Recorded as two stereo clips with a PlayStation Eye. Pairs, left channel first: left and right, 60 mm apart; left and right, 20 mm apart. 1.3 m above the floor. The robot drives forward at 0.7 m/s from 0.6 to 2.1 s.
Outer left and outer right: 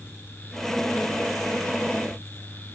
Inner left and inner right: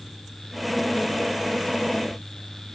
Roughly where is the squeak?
No squeak in this recording.